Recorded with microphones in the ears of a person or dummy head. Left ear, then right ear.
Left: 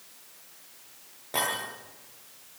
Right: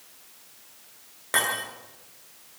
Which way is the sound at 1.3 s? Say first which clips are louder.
Right 4 dB; 75° right (ahead or behind).